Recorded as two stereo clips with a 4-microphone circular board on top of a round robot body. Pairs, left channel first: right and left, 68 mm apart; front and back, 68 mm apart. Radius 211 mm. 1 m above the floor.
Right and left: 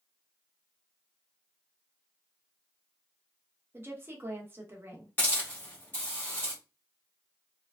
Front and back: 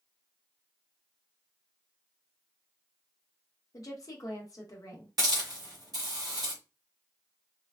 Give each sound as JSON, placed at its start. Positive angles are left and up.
{"t": 3.7, "sound": "a woman speaking", "azimuth_deg": 35, "distance_m": 1.0}
{"t": 5.2, "sound": "a hiss", "azimuth_deg": -155, "distance_m": 1.0}